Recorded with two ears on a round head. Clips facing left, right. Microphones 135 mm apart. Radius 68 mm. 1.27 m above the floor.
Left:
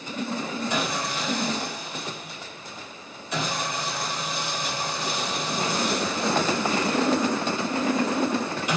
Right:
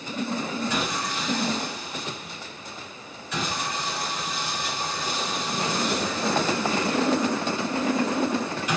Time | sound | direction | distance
0.7 | sawing | 20° left (ahead or behind) | 2 m